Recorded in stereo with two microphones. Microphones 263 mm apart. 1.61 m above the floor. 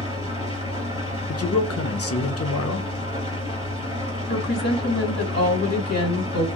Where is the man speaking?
60° left (ahead or behind), 0.6 m.